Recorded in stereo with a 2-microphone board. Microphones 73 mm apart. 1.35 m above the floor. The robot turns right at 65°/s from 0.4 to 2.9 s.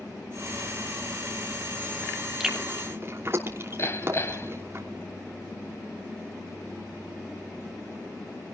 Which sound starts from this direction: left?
Hammering, at 3.8 s.